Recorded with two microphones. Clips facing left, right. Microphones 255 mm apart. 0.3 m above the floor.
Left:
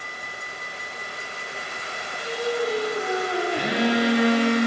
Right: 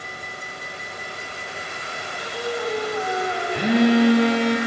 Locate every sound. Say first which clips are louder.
2.1 s singing: left 3 dB; 40° left (ahead or behind), 1.4 m
3.5 s a phone buzzing: right 8 dB; 65° right (ahead or behind), 1.6 m